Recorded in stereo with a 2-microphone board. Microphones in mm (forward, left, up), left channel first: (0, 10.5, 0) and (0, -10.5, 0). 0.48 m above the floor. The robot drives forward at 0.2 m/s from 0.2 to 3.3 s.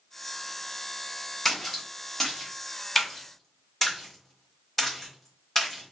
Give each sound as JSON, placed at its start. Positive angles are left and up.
{"t": 1.4, "sound": "a splash", "side_deg": 10, "distance_m": 1.1}